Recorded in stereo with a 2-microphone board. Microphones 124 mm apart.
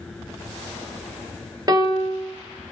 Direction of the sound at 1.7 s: 35° right (ahead or behind).